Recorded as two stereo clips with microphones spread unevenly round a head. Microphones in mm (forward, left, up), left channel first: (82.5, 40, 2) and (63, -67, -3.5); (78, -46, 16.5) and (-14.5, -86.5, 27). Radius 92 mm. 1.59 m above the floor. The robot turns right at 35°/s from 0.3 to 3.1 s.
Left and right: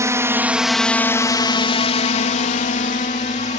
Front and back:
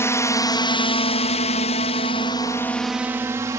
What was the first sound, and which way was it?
A drone, 40° right.